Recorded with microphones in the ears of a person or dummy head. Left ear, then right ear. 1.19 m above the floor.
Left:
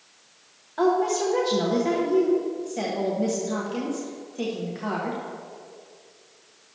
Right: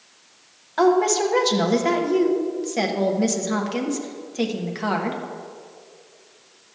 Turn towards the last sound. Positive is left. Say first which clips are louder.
# right 4 dB
turn(degrees=-45)  # may be behind; listen again after turning